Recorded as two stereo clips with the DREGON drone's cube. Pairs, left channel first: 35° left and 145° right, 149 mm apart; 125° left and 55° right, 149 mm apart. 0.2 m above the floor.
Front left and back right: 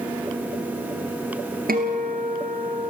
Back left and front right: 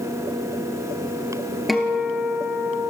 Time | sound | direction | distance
1.7 | a guitar | 145° right | 2 m